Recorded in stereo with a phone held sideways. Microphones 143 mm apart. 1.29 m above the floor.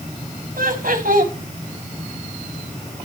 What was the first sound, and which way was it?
Laughter, 75° right (ahead or behind).